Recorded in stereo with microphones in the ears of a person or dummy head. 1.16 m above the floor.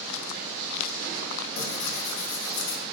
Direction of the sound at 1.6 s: 70° left (ahead or behind).